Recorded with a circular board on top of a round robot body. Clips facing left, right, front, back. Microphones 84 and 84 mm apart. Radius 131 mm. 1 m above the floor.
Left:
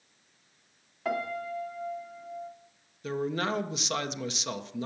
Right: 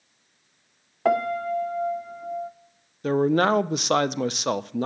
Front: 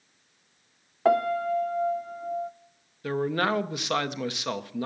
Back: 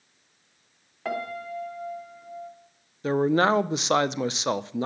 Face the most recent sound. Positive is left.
turn(degrees=-115)